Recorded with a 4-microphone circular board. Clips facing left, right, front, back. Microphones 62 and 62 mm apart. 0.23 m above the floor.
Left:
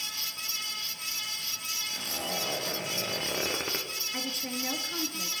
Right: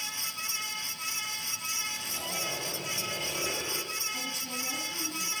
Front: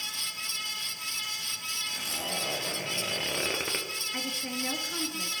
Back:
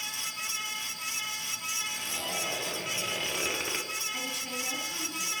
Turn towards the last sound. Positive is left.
turn(degrees=55)